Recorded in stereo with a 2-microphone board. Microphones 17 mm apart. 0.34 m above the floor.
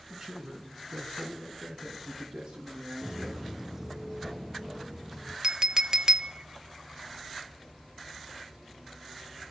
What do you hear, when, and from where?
0.1 s a man speaking: 35° right (ahead or behind), 4.5 m; by 3.4 s 60° right (ahead or behind), 6.5 m
3.0 s footsteps: 20° right (ahead or behind), 0.6 m
5.4 s a clink: 40° right (ahead or behind), 0.6 m